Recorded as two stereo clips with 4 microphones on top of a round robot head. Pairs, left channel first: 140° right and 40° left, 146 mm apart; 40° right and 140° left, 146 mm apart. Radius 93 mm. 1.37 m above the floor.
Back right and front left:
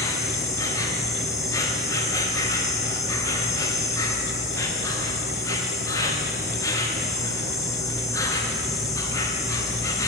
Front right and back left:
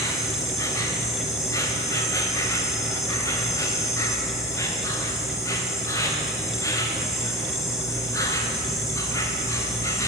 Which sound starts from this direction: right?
An insect, at 0.0 s.